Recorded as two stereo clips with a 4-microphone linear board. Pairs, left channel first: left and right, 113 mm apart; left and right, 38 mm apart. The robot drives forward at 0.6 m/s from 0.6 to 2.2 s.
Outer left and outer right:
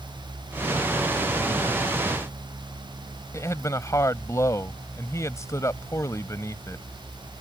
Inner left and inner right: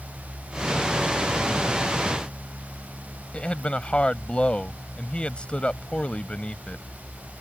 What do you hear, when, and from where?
3.3 s a man speaking: 30° left (ahead or behind)